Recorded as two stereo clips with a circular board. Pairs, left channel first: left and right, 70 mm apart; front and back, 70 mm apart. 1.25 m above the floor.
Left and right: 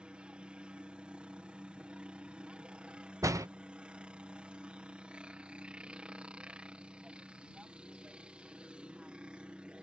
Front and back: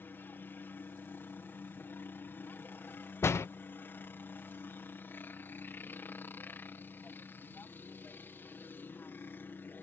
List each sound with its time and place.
0.0 s a helicopter: 25° right
3.2 s a door slam: 50° right